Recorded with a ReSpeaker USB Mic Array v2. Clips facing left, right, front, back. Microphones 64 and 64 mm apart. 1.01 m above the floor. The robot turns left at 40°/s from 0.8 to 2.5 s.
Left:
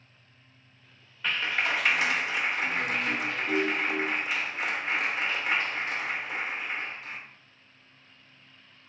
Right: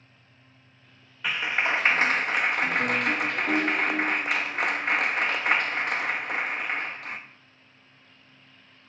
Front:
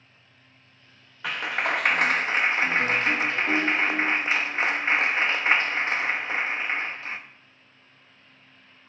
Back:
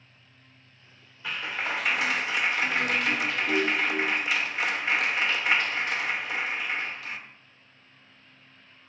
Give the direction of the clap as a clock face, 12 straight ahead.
12 o'clock.